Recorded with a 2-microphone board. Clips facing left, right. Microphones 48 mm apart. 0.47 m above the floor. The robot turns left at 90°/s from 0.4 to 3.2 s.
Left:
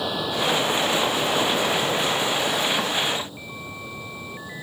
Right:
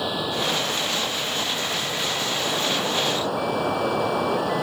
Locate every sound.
0.0 s running water: straight behind; by 4.6 s 70° right